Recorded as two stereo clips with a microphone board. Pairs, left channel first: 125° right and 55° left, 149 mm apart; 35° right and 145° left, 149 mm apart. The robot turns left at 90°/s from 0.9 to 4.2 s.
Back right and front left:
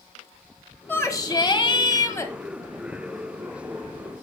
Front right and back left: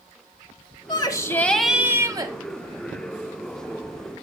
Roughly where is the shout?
Ahead right.